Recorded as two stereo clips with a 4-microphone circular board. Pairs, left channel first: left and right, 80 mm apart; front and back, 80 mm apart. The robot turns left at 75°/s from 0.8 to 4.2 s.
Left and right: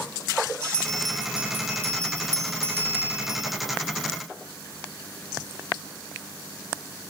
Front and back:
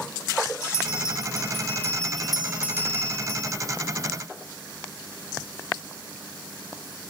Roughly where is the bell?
Ahead.